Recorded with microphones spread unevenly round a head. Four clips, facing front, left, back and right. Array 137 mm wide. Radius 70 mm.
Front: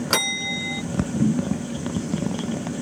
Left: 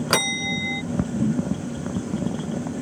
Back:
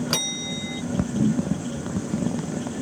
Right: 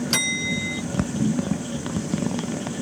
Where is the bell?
70° left.